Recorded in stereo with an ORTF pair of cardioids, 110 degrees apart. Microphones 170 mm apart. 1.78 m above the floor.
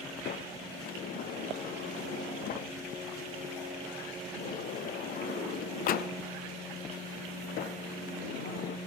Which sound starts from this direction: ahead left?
A sliding door, at 0.2 s.